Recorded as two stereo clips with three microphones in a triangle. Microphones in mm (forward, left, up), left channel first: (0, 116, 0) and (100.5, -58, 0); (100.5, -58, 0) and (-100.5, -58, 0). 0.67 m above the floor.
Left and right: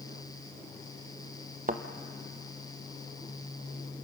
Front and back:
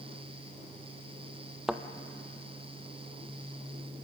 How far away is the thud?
About 0.9 m.